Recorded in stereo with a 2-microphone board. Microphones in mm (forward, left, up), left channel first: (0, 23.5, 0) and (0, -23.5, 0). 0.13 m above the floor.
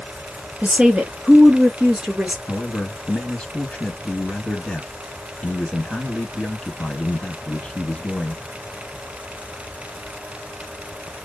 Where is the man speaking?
25° left (ahead or behind), 1.3 m.